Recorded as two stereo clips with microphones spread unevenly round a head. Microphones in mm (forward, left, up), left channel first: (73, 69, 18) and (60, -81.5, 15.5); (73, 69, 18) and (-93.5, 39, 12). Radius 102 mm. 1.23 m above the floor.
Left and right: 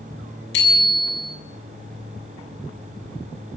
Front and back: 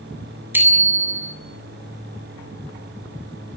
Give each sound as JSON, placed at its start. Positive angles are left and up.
{"t": 0.5, "sound": "a bicycle bell", "azimuth_deg": 110, "distance_m": 7.5}